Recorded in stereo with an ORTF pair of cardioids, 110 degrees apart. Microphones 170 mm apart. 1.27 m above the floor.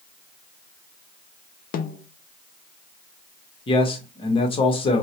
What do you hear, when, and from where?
1.7 s a snare drum: 55° left, 0.5 m
3.7 s a man speaking: 30° left, 1.1 m